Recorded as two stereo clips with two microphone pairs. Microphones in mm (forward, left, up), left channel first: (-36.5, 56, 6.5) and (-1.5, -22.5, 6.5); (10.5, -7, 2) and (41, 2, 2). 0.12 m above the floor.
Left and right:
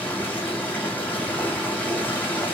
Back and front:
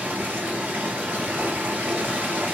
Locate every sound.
0.0 s running water: 40° left, 3 m